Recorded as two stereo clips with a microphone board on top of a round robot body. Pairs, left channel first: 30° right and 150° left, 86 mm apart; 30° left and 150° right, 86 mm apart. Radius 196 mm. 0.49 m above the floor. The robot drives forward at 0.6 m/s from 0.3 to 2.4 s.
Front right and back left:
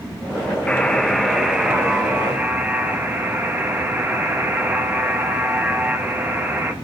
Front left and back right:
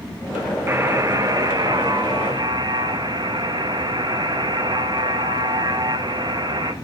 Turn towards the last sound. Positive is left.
turn(degrees=-145)